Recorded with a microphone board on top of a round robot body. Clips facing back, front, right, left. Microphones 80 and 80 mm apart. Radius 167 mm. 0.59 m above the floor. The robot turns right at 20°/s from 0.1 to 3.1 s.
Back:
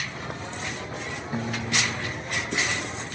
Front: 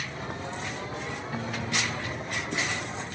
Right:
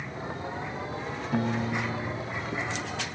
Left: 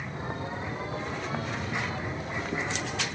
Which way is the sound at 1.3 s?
110° right.